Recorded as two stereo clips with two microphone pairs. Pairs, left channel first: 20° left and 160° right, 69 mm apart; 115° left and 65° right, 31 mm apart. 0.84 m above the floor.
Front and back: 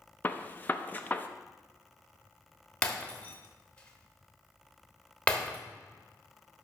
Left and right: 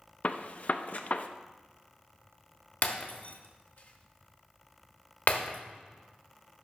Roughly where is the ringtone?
No ringtone in this recording.